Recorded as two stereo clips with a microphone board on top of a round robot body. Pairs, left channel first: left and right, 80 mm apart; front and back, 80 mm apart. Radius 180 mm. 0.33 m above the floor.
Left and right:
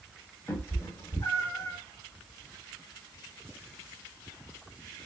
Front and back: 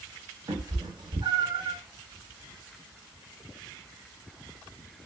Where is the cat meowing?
145° left, 1.4 m.